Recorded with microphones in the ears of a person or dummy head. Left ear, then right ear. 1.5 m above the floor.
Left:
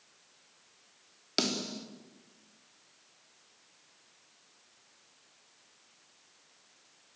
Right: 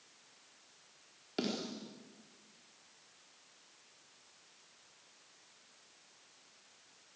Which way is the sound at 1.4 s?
55° left (ahead or behind).